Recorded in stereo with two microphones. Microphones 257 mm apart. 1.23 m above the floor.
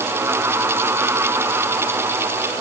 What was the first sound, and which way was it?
Only background noise.